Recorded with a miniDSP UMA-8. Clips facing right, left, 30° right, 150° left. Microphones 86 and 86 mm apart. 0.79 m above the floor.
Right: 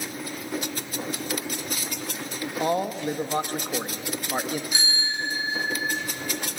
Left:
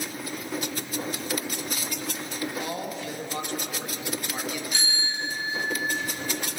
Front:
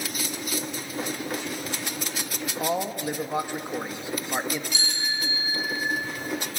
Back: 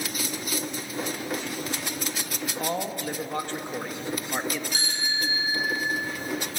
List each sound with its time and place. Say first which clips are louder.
2.6 s a man speaking: right 7 dB, front 3 dB; 105° right, 1.3 m
4.7 s a bicycle bell: right 2 dB, back 1 dB; 165° right, 6 m